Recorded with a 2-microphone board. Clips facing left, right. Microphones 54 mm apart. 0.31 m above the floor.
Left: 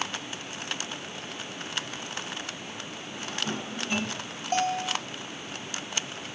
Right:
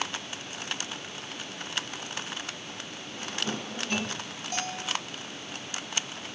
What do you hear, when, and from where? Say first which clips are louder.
3.1 s a drawer: even; 5° left (ahead or behind), 2 m
4.5 s a bell: left 7 dB; 40° left (ahead or behind), 1.3 m